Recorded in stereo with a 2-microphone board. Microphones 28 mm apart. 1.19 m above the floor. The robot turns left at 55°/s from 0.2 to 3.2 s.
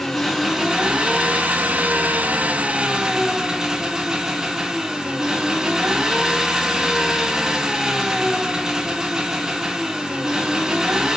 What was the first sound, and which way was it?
An engine running, 5° left.